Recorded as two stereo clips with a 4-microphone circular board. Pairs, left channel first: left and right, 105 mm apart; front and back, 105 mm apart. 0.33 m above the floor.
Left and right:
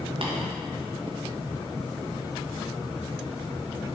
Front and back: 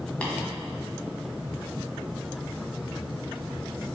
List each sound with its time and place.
0.2 s tapping: 75° right, 1.8 m